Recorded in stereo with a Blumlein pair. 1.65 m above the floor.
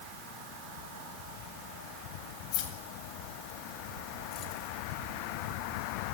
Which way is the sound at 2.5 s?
45° left.